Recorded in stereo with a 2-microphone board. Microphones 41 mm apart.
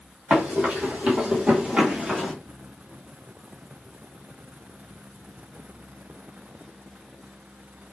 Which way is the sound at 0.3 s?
40° right (ahead or behind).